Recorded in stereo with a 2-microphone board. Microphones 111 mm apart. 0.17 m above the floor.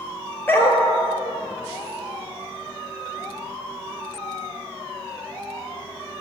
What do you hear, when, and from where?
0.5 s a dog barking: 20° left (ahead or behind), 1.0 m